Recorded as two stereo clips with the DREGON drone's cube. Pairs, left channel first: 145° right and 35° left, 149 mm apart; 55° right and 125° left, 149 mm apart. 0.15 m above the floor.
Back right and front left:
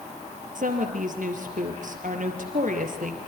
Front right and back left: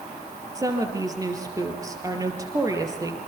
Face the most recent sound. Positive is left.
turn(degrees=60)